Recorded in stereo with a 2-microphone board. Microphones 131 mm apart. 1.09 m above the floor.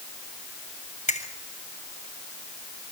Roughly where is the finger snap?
Left.